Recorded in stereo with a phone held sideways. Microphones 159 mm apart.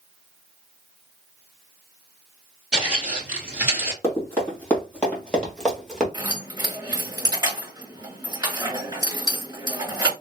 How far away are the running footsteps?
About 2.5 m.